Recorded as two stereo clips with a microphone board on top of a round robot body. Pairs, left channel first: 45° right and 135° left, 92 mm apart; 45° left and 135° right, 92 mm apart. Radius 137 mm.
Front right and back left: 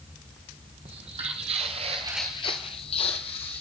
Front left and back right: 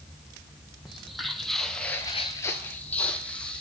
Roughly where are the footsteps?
Behind left.